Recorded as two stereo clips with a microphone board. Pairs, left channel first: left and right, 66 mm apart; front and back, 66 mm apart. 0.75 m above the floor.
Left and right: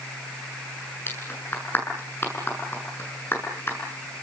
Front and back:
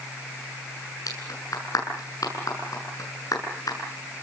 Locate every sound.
1.1 s a clap: 35° left, 8 m